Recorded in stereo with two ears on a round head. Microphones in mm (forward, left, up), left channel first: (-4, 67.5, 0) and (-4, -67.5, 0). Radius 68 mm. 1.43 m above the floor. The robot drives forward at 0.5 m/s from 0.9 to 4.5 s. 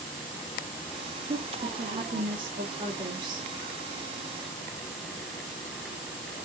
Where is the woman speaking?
35° right (ahead or behind), 2.5 m; by 3.5 s 25° right (ahead or behind), 3.5 m.